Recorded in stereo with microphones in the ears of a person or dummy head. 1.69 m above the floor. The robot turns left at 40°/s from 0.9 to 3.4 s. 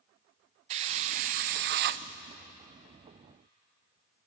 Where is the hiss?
50° right, 0.6 m; by 2.0 s 95° right, 0.6 m.